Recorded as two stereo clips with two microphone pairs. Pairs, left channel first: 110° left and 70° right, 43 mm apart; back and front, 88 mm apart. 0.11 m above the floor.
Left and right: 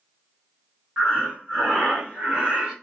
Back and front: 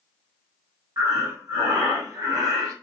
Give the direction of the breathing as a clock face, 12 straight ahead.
1 o'clock.